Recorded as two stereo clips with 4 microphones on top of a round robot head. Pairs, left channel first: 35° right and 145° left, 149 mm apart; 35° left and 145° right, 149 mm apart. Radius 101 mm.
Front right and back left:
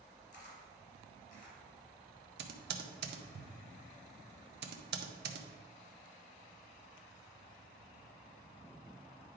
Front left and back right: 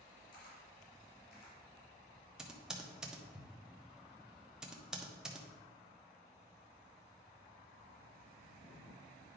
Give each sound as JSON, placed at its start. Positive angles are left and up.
{"t": 0.3, "sound": "a camera shutter", "azimuth_deg": 5, "distance_m": 3.5}
{"t": 2.4, "sound": "typing on a keyboard", "azimuth_deg": 130, "distance_m": 0.8}